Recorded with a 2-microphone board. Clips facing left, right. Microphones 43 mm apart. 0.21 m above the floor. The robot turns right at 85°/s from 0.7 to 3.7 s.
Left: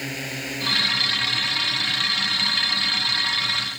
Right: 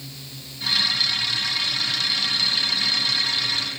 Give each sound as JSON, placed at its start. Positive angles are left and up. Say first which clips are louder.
{"t": 0.0, "sound": "a drone", "louder": "left 11 dB", "side_deg": 65}